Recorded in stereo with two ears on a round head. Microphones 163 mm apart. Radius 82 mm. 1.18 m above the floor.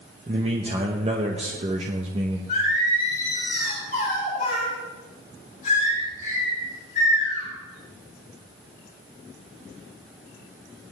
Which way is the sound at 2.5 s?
40° left (ahead or behind).